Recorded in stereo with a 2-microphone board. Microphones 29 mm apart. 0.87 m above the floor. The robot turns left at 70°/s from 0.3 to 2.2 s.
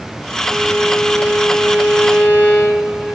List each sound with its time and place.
0.5 s a violin: straight behind, 4.5 m; by 3.1 s 60° left, 4.5 m